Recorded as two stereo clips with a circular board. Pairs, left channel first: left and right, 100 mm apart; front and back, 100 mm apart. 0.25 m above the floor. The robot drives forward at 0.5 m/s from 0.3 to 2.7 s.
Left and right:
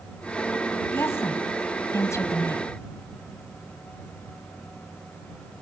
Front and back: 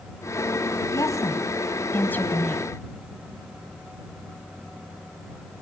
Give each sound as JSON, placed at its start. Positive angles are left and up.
{"t": 0.9, "sound": "a woman speaking", "azimuth_deg": 35, "distance_m": 1.9}